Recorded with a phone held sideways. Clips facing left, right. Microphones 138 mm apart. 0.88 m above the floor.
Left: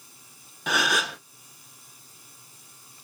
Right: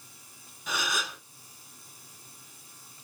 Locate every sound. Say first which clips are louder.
0.7 s a gasp: left 7 dB; 70° left (ahead or behind), 0.6 m